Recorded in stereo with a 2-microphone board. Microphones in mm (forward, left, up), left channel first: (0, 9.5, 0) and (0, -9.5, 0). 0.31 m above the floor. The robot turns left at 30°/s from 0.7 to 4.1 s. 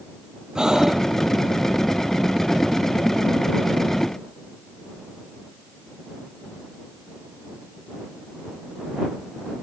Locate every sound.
0.6 s breathing: 40° right (ahead or behind); by 1.1 s 30° right (ahead or behind)